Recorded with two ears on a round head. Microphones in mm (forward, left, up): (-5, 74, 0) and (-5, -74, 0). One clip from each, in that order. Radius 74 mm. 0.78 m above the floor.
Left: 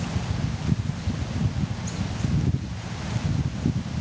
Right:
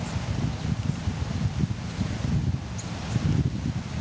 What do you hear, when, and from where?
Only background noise.